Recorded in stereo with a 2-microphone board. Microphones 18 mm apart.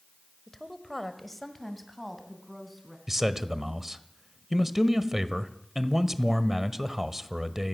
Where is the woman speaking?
20° left (ahead or behind), 1.3 m; by 3.0 s 5° left (ahead or behind), 3.5 m.